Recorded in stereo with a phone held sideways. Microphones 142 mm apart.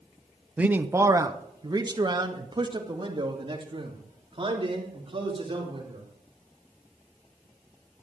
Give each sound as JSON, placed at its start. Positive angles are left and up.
{"t": 0.6, "sound": "a man speaking", "side_deg": -10, "distance_m": 0.7}